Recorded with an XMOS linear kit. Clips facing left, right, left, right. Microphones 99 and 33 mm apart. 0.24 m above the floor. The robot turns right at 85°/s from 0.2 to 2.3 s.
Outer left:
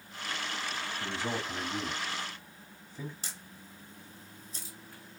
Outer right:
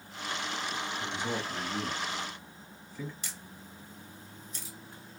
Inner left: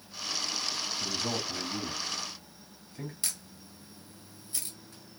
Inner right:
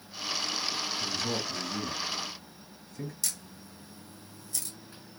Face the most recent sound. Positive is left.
turn(degrees=35)  # may be behind; listen again after turning